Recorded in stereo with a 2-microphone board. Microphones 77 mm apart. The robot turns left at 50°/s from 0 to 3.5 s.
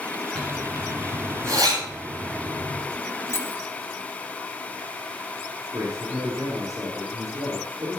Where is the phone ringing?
I don't hear a phone ringing.